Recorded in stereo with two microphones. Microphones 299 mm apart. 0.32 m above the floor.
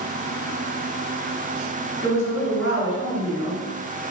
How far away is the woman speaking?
About 2.0 m.